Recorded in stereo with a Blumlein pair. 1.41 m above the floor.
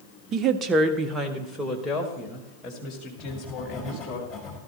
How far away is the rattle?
I don't hear a rattle.